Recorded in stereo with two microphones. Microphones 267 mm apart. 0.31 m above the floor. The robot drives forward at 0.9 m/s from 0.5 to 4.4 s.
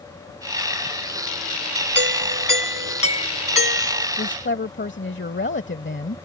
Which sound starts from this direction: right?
A doorbell, at 1.9 s.